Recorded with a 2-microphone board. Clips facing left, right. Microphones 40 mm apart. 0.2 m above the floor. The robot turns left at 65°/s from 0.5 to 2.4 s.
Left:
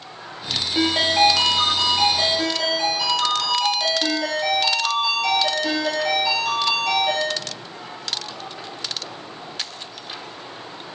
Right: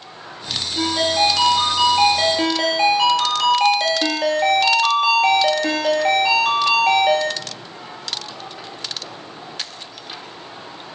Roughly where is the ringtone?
Ahead left.